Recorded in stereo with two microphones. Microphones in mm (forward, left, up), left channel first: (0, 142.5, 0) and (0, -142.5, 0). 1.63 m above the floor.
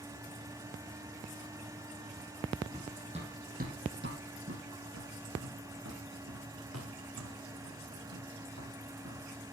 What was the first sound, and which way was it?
Running footsteps, 15° right (ahead or behind).